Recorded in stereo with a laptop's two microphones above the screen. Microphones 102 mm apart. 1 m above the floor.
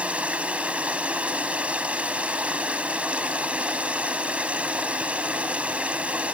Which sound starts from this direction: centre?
Running water, at 0.0 s.